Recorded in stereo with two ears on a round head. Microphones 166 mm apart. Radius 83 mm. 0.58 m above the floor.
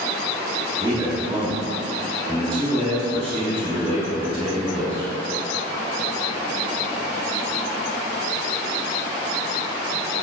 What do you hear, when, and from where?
0.8 s a man speaking: 35° right (ahead or behind), 1.7 m